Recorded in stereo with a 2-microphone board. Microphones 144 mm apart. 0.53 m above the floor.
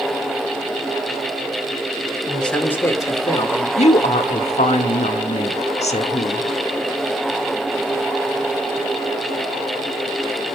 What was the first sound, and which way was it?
A man speaking, centre (ahead or behind).